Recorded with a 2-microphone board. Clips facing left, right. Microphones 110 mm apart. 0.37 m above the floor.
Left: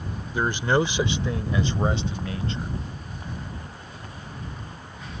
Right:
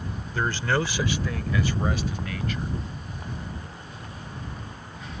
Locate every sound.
0.3 s a man speaking: 15° left (ahead or behind); by 2.7 s 25° left (ahead or behind)